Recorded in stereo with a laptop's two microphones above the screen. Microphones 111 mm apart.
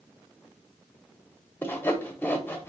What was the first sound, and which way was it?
Sawing, 20° left (ahead or behind).